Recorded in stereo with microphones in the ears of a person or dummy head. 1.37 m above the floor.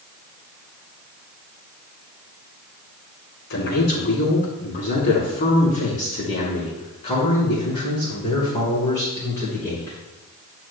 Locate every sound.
3.5 s a man speaking: 50° left (ahead or behind), 4 m; by 10.0 s 10° left (ahead or behind), 5 m